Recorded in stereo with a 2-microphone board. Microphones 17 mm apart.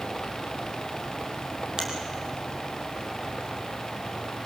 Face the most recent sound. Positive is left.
turn(degrees=-40)  # may be behind; listen again after turning